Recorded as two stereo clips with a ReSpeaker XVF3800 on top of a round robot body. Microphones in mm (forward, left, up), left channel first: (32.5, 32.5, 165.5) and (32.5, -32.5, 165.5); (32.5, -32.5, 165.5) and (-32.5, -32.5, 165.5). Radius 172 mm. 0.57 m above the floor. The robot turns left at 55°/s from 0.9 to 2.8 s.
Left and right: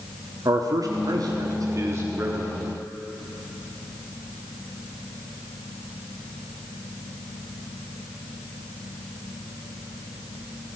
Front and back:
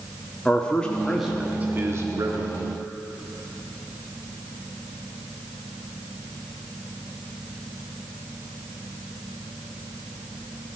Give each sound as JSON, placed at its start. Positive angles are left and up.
{"t": 0.5, "sound": "a man speaking", "azimuth_deg": -75, "distance_m": 1.4}